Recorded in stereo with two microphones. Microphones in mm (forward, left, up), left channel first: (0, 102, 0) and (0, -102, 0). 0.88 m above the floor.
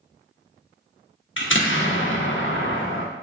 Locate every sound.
1.4 s an explosion: 70° left (ahead or behind), 0.7 m